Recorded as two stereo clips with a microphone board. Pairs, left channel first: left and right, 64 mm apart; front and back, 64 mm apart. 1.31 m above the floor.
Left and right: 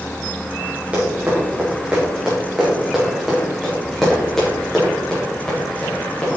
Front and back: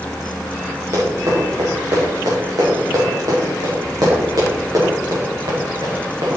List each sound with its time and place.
0.9 s running footsteps: 155° right, 4.5 m; by 6.4 s 160° left, 4 m